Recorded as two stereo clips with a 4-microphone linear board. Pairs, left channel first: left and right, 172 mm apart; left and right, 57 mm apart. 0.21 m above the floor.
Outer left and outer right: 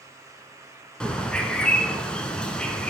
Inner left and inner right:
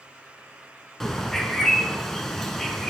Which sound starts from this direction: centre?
A bird, at 1.0 s.